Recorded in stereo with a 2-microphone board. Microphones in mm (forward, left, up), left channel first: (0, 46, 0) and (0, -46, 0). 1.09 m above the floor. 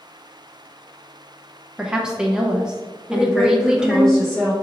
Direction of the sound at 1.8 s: 5° right (ahead or behind).